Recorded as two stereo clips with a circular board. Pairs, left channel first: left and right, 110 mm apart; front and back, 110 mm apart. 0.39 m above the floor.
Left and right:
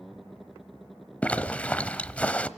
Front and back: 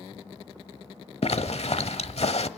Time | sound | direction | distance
1.2 | a zipper | 10° left | 0.8 m